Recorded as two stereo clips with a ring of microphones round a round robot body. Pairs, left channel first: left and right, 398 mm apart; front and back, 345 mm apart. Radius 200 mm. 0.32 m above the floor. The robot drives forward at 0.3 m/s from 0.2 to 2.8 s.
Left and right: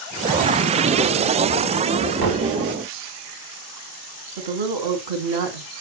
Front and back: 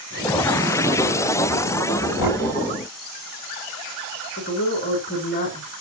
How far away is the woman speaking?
About 2.5 m.